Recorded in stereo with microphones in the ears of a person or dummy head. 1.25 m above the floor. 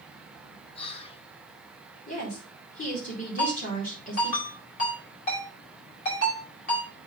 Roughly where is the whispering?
Left.